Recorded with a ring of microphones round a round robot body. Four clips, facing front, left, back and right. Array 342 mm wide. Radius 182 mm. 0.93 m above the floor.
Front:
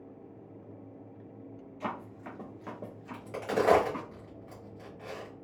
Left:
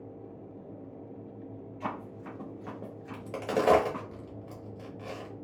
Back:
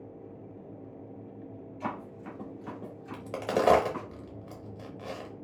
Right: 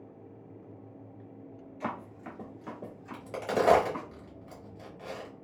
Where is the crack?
175° left, 0.7 m.